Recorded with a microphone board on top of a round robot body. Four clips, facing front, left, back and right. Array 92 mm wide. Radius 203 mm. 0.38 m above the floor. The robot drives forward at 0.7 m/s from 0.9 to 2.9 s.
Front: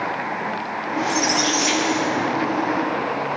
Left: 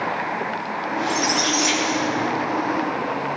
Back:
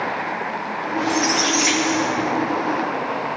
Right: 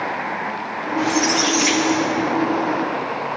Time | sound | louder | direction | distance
1.0 | a squeak | right 4 dB, back 1 dB | 100° right | 1.3 m